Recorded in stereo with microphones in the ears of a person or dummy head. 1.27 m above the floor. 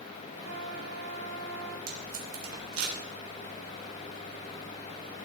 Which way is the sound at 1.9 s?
85° right.